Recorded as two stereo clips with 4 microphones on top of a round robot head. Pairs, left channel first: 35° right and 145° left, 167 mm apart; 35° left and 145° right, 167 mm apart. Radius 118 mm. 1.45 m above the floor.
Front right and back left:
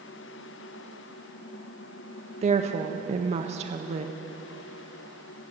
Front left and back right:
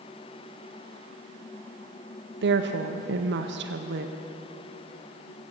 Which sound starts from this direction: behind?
A woman speaking, at 2.4 s.